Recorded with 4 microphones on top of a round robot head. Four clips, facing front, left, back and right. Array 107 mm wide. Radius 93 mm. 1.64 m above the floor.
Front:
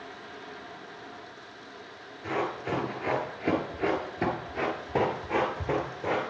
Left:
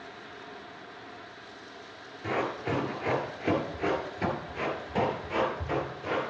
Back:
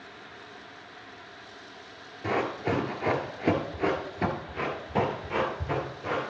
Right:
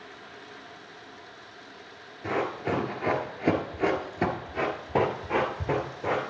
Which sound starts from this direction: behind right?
Running footsteps, at 2.2 s.